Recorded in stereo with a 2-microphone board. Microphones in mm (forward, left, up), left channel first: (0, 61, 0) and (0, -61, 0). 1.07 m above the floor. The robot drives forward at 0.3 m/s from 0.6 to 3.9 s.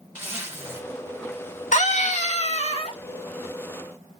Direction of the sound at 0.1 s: 20° right (ahead or behind).